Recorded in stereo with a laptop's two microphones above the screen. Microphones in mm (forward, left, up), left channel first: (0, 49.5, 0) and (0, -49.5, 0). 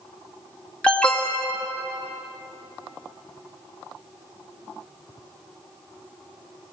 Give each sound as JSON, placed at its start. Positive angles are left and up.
{"t": 0.8, "sound": "an alarm", "side_deg": 10, "distance_m": 2.0}